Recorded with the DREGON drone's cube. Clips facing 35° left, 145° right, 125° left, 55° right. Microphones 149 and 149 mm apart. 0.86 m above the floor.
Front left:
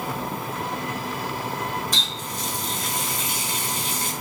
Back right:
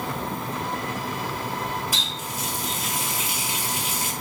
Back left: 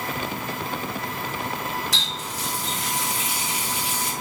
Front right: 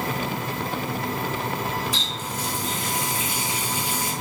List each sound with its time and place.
1.9 s a running tap: 130° left, 0.9 m